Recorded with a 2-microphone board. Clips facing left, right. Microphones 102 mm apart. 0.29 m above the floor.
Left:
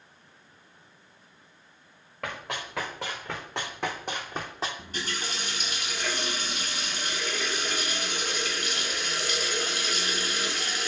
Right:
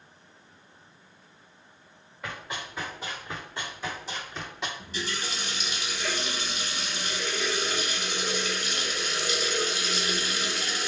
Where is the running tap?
55° left (ahead or behind), 1.3 m.